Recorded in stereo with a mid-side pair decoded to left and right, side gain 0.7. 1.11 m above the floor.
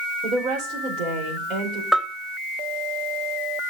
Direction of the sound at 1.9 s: 5° left.